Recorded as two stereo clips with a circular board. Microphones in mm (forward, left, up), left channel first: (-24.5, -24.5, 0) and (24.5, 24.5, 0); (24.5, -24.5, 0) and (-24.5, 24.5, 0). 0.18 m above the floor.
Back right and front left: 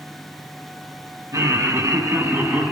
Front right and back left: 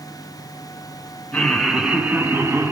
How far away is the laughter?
About 2.0 m.